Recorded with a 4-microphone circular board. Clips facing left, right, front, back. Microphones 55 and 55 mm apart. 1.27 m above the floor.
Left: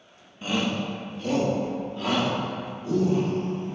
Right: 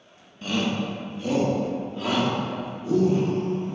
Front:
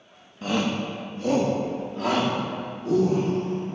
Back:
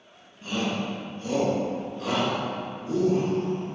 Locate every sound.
0.4 s a shout: 15° left, 1.1 m; by 3.8 s 20° right, 3.5 m